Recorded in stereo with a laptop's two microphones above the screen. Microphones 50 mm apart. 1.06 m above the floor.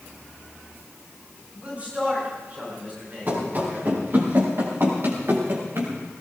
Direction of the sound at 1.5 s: 25° right (ahead or behind).